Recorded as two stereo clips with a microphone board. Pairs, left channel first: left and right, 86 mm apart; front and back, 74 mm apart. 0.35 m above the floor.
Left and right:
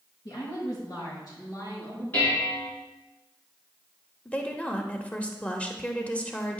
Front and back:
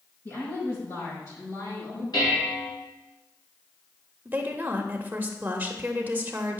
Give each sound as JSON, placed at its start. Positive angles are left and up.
{"t": 0.2, "sound": "a woman speaking", "azimuth_deg": 50, "distance_m": 4.0}
{"t": 2.1, "sound": "dishes clattering", "azimuth_deg": 25, "distance_m": 3.5}
{"t": 4.2, "sound": "a woman speaking", "azimuth_deg": 150, "distance_m": 0.9}